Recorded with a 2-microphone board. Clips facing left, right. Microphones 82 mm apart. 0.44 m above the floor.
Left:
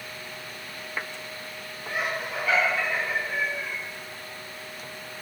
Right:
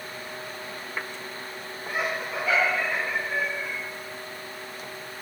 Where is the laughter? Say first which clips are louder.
Right 1 dB; 10° right (ahead or behind), 5.5 m.